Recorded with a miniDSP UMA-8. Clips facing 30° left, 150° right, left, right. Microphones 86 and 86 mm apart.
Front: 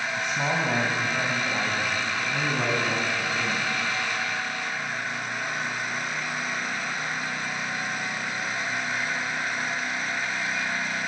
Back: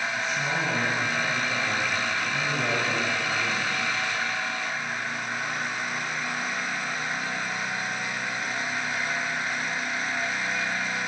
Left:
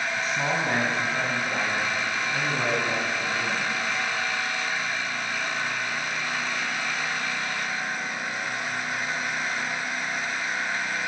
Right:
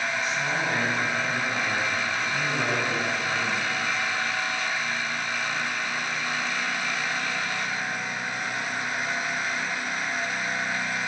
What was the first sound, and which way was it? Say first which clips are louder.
A man speaking: front 4 dB, left 1 dB; 40° left.